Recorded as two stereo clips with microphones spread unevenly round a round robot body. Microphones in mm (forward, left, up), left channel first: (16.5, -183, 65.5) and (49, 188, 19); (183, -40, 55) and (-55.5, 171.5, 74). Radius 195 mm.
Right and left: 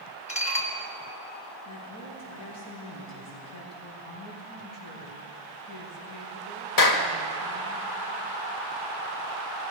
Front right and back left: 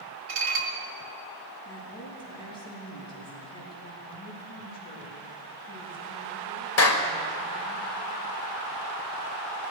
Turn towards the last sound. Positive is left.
turn(degrees=-65)